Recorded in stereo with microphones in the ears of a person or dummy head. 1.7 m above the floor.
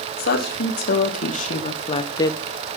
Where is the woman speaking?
60° left (ahead or behind), 3 m; by 2.4 s 15° left (ahead or behind), 1.1 m.